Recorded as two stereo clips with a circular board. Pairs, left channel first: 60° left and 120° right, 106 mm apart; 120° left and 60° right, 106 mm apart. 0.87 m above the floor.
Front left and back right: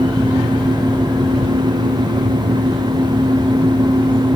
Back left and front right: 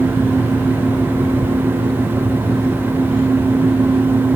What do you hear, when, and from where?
Only background noise.